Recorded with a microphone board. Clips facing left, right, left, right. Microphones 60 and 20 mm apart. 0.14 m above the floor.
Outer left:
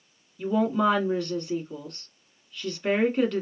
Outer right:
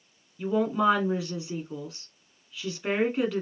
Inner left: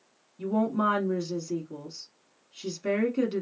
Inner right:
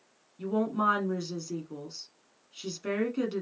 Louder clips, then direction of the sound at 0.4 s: Outer left 1 dB, inner left 2 dB; 5° right (ahead or behind).